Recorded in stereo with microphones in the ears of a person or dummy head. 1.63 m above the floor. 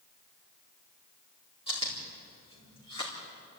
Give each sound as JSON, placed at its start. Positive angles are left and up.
{"t": 1.7, "sound": "chewing", "side_deg": 30, "distance_m": 3.5}